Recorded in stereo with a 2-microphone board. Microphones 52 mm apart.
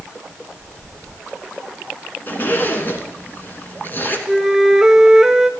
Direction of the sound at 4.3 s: 5° right (ahead or behind).